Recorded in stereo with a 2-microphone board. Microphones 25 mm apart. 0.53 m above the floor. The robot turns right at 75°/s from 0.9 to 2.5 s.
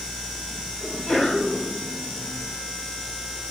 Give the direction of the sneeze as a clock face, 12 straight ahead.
9 o'clock.